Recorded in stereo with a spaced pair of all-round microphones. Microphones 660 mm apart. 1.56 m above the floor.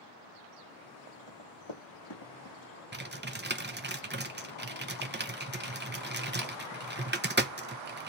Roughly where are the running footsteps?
Left.